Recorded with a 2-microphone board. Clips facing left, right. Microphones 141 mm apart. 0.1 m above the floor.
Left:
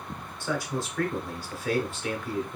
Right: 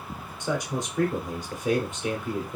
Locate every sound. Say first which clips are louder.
0.4 s a man speaking: right 2 dB; 20° right (ahead or behind), 1.1 m